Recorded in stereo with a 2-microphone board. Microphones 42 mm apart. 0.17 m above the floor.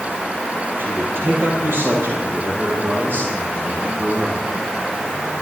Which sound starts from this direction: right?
A man speaking, at 0.8 s.